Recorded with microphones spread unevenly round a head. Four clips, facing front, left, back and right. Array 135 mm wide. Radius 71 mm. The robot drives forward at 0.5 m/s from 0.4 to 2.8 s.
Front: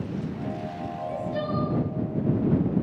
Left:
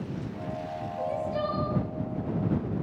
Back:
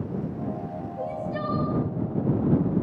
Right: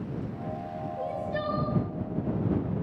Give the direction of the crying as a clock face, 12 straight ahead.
5 o'clock.